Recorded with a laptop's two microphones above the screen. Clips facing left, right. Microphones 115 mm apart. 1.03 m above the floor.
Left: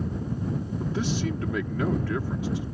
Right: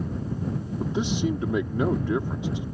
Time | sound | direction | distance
0.8 | a man speaking | 20° right (ahead or behind) | ?